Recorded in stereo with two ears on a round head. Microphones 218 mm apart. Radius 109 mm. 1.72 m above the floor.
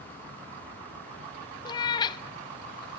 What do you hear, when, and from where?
1.6 s a cat meowing: 15° left (ahead or behind), 0.9 m